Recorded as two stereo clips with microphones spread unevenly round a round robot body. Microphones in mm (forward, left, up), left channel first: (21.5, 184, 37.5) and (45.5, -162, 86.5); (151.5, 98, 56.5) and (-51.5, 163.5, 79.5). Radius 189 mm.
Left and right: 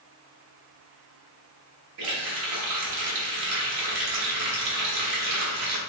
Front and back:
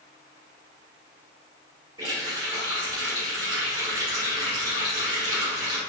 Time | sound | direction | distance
2.0 | a running tap | 120° right | 1.2 m